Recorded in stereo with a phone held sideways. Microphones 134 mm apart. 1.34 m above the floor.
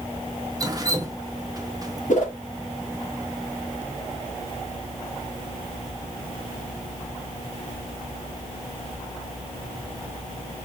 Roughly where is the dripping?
Right.